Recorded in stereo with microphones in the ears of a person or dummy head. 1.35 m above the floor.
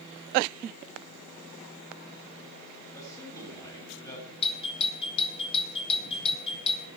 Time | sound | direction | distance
2.9 | a man speaking | 15° left (ahead or behind) | 8.5 m
4.4 | a doorbell | 35° left (ahead or behind) | 3 m